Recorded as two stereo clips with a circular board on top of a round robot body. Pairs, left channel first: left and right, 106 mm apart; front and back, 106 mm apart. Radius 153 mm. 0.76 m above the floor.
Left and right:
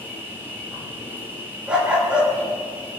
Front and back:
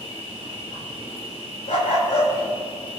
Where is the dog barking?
10° right, 5.5 m.